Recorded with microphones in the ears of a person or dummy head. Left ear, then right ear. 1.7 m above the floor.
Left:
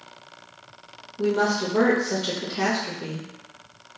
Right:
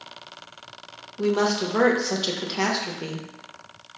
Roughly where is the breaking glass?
No breaking glass in this recording.